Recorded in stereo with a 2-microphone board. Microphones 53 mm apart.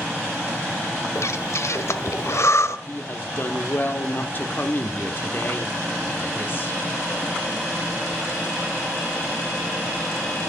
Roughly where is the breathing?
Left.